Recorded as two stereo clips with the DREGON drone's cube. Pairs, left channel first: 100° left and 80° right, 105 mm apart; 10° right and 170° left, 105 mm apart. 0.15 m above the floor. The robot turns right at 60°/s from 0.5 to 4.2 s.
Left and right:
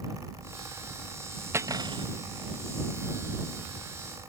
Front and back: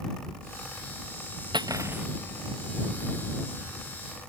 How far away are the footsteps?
No footsteps in this recording.